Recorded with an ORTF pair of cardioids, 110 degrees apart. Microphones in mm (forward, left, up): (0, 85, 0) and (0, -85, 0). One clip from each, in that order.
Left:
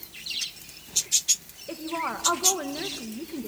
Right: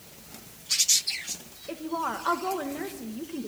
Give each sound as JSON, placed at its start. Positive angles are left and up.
{"t": 1.7, "sound": "a woman speaking", "azimuth_deg": 0, "distance_m": 2.0}